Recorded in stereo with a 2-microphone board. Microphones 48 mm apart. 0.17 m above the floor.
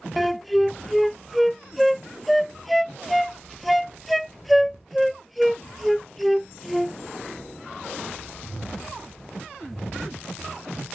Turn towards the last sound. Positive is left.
turn(degrees=0)  # may be behind; listen again after turning